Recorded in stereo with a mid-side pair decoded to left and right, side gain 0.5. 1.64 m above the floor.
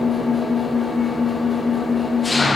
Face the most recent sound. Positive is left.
turn(degrees=20)